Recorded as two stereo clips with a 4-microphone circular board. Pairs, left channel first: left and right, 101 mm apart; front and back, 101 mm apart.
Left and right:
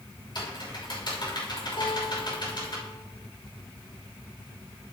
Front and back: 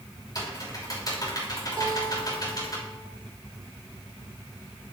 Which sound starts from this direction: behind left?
A guitar, at 1.8 s.